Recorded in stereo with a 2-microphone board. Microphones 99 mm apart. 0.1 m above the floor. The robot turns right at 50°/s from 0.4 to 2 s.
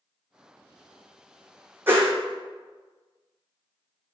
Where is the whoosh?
20° right (ahead or behind), 0.8 m; by 2.1 s 30° right (ahead or behind), 0.8 m.